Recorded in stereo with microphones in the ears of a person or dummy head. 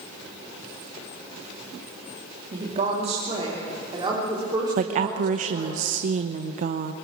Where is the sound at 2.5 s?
40° right (ahead or behind), 2.5 m; by 5.8 s 25° right (ahead or behind), 5 m.